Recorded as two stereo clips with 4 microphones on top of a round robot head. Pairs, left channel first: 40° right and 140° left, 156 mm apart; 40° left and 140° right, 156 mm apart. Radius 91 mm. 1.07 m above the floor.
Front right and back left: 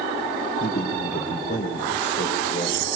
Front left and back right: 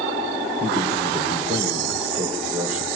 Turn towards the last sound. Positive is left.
turn(degrees=-80)